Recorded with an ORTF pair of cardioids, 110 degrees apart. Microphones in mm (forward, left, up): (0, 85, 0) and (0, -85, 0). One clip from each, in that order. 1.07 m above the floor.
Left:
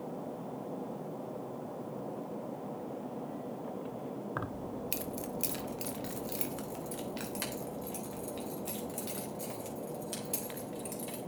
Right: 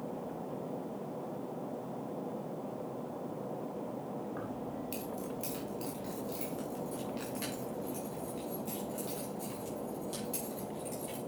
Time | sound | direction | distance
4.4 | keys jangling | 60° left | 0.7 m